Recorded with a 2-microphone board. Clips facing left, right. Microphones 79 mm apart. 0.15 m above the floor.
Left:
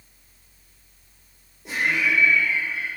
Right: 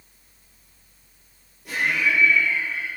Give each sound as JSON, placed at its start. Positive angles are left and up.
{"t": 1.6, "sound": "laughter", "side_deg": 25, "distance_m": 4.0}